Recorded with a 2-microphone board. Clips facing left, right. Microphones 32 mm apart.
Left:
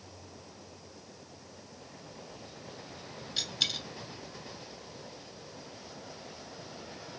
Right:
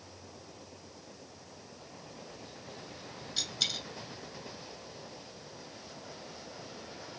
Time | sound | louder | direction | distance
3.4 | a dropped coin | left 2 dB | 15° left (ahead or behind) | 1.1 m